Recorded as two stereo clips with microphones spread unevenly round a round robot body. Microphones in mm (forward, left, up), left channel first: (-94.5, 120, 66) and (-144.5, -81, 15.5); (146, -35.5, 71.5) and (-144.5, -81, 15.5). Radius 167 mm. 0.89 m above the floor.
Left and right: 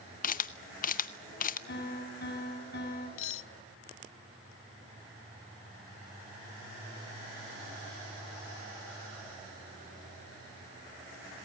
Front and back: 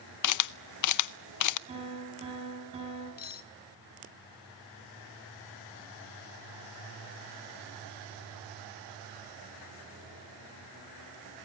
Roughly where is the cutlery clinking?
Left.